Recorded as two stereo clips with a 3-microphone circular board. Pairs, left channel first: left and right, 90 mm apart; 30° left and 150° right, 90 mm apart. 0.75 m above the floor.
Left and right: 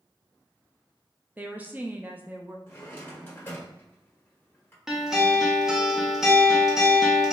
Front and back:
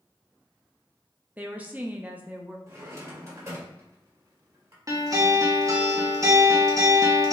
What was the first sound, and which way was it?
A woman speaking, 120° right.